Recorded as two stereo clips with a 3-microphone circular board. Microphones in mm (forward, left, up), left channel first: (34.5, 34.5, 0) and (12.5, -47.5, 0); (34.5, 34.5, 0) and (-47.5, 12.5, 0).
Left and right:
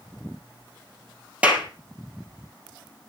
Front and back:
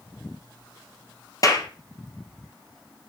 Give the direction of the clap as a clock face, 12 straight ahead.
1 o'clock.